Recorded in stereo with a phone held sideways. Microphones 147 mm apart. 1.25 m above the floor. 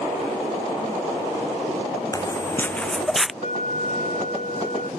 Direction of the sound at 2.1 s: 20° left (ahead or behind).